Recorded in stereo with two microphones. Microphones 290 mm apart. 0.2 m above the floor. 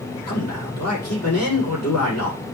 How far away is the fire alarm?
No fire alarm in this recording.